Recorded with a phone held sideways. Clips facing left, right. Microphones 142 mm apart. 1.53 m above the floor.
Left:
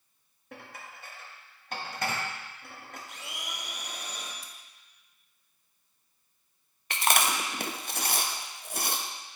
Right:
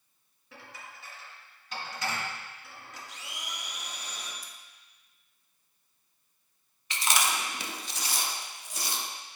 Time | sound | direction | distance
0.5 | dishes clattering | 55° left (ahead or behind) | 1.3 m
3.1 | a blender | 55° left (ahead or behind) | 1.1 m
4.4 | scissors | 25° left (ahead or behind) | 0.6 m
6.9 | chewing | 55° left (ahead or behind) | 0.6 m